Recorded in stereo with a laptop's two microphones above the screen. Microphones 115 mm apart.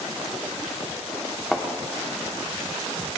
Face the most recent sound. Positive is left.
turn(degrees=0)  # may be behind; listen again after turning